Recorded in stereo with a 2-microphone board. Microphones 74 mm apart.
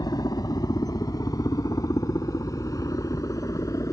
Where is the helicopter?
55° left (ahead or behind); by 3.9 s 45° left (ahead or behind).